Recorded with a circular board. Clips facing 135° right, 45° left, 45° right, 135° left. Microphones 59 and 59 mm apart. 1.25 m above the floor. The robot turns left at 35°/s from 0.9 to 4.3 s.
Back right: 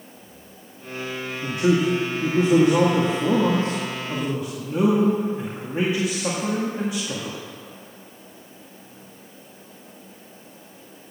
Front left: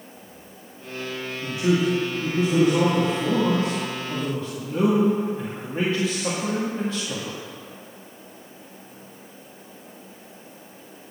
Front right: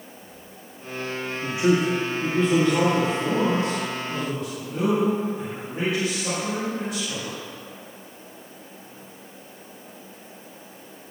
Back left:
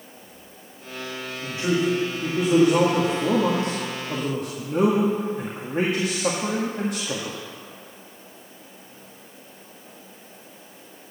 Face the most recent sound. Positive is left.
turn(degrees=150)